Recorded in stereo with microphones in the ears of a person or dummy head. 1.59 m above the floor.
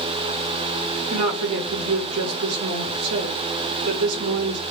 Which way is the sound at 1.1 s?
80° right.